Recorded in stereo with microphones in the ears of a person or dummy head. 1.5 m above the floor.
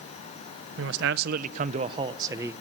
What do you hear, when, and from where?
0.8 s a man speaking: 80° right, 1.1 m; by 2.5 s 15° right (ahead or behind), 1.3 m